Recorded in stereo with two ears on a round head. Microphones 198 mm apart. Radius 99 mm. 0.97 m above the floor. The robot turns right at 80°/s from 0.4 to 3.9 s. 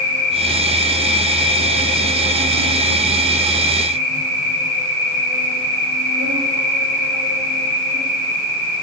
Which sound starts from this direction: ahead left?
An insect, at 0.0 s.